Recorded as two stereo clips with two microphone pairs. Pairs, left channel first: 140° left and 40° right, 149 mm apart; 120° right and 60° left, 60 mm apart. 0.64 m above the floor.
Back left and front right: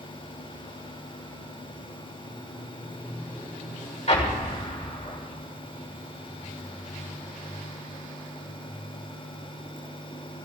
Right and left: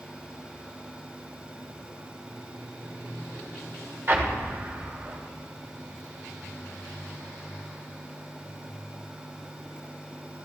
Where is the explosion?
100° left, 2.5 m.